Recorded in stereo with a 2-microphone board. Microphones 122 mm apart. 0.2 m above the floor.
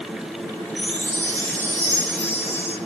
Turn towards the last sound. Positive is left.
turn(degrees=15)  # may be behind; listen again after turning